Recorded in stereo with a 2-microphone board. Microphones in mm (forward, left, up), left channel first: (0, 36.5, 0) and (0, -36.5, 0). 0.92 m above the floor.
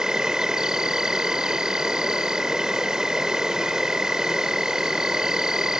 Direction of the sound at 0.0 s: 10° right (ahead or behind).